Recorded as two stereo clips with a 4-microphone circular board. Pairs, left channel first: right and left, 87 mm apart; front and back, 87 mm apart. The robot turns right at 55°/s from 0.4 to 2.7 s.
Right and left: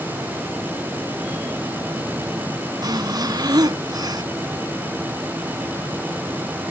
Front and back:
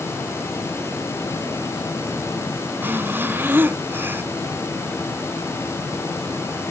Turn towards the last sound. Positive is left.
turn(degrees=115)